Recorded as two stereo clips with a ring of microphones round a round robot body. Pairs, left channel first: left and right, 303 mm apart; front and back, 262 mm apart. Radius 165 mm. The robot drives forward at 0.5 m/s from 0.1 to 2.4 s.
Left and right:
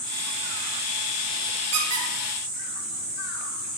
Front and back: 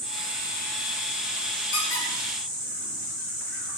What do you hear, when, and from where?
1.7 s a squeak: 50° right, 4.5 m; by 3.4 s 55° right, 4 m